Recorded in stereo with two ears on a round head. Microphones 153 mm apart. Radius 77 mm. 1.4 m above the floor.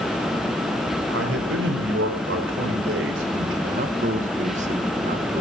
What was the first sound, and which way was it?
A man speaking, 80° right.